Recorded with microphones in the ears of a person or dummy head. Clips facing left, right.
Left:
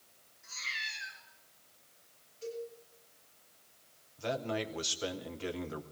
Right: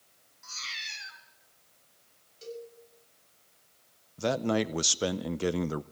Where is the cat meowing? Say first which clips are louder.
Even; 70° right (ahead or behind), 4 m.